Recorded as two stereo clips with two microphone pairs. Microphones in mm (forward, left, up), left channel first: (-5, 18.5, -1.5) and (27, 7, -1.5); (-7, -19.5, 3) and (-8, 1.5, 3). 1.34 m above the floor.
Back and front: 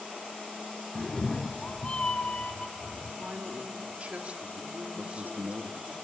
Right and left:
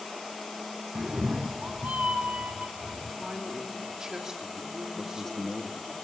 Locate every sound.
0.9 s a cat meowing: 80° left, 0.5 m; by 3.1 s 100° left, 3 m
3.2 s a man speaking: 30° left, 3 m
5.0 s a man speaking: 10° right, 2.0 m